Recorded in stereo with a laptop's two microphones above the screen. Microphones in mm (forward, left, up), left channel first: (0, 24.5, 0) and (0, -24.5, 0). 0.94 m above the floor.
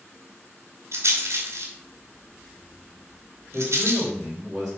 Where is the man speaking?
15° right (ahead or behind), 3.5 m.